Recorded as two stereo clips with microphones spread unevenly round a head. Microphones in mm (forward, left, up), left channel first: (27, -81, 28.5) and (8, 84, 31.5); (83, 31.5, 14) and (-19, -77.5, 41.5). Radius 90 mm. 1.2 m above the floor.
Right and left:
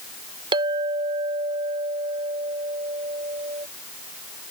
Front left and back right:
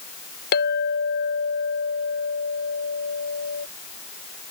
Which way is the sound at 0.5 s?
35° left.